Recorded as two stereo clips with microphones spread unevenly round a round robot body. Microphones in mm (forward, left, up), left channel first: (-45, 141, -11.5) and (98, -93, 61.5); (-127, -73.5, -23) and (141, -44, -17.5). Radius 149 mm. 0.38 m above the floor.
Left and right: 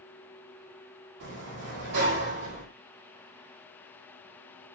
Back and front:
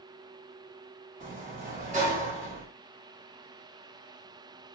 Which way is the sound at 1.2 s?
50° right.